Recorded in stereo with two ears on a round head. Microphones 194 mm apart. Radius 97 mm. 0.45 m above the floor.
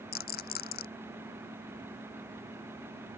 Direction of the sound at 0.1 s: 45° left (ahead or behind).